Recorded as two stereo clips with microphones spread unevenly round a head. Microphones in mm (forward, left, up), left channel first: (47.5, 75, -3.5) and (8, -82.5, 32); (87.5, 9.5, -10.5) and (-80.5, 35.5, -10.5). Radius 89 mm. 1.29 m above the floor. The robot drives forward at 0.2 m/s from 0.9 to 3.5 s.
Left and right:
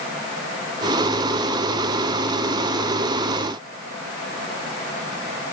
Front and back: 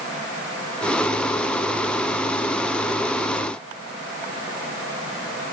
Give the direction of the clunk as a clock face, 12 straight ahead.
No clunk in this recording.